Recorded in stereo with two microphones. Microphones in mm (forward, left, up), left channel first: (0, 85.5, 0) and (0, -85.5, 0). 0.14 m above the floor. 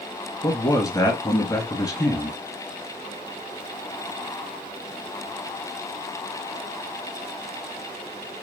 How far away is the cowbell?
I don't hear a cowbell.